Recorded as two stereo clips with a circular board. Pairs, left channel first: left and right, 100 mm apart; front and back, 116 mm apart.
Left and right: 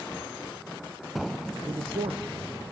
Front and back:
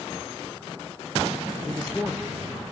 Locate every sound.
1.7 s a man speaking: 100° right, 1.2 m